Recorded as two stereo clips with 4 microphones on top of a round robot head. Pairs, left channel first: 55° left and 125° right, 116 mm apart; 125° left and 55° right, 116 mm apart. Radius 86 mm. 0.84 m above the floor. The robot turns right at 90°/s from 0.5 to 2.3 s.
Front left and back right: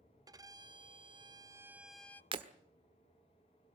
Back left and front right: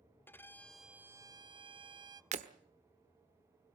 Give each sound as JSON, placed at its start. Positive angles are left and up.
{"t": 0.3, "sound": "a violin", "azimuth_deg": -170, "distance_m": 0.8}
{"t": 2.3, "sound": "breaking glass", "azimuth_deg": -80, "distance_m": 1.3}